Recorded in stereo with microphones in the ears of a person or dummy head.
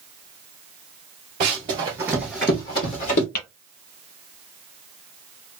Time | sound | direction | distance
1.4 | running footsteps | 35° right (ahead or behind) | 1.3 m
3.4 | tapping | 50° left (ahead or behind) | 1.7 m